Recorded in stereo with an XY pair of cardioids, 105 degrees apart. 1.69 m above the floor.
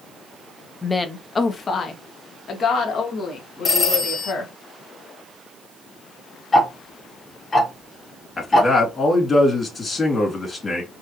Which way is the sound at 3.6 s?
35° left.